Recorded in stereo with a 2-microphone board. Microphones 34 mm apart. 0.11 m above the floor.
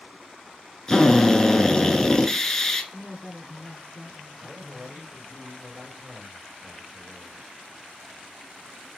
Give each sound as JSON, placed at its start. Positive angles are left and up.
{"t": 0.9, "sound": "a drill", "side_deg": 15, "distance_m": 0.7}
{"t": 2.9, "sound": "a woman speaking", "side_deg": 20, "distance_m": 1.1}
{"t": 4.4, "sound": "a man speaking", "side_deg": -25, "distance_m": 2.0}